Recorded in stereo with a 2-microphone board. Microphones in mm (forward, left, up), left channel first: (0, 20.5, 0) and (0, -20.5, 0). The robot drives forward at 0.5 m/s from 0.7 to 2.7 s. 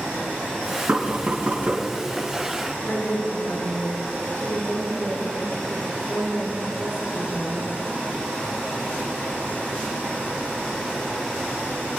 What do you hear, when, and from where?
0.9 s knocking: 50° right (ahead or behind), 4 m; by 1.9 s 45° right (ahead or behind), 4.5 m
2.8 s a woman speaking: 55° left (ahead or behind), 5 m